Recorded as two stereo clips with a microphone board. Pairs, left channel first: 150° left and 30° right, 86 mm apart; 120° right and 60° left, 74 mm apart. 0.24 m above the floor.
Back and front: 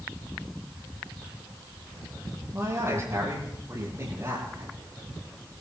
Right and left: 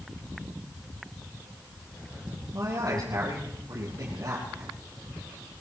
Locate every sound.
2.5 s a man speaking: 25° left, 8 m